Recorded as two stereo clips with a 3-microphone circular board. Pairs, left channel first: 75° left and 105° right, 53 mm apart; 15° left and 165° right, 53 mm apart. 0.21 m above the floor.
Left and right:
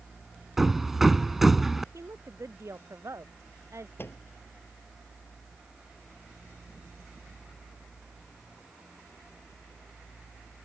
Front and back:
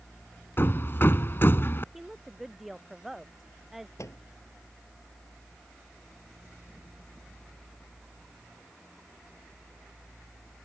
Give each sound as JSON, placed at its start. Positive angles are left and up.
{"t": 0.6, "sound": "hammering", "azimuth_deg": -20}
{"t": 1.9, "sound": "a woman speaking", "azimuth_deg": -80}
{"t": 4.0, "sound": "a microwave", "azimuth_deg": 35}